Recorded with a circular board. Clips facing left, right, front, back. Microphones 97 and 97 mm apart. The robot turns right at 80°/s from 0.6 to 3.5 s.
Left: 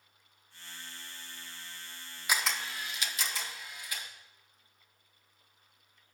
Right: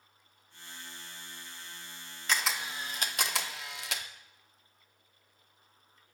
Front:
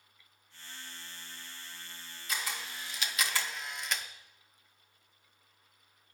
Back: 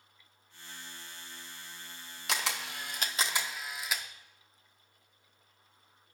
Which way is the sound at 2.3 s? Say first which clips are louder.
Even, back 4 dB; 170° left.